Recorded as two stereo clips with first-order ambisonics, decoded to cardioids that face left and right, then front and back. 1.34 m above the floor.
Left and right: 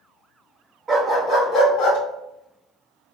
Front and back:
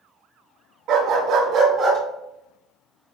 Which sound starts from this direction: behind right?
A dog barking, at 0.9 s.